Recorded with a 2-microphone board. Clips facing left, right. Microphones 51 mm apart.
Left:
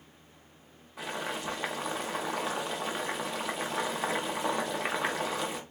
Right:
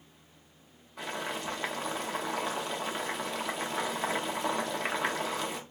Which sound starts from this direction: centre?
Boiling, at 1.0 s.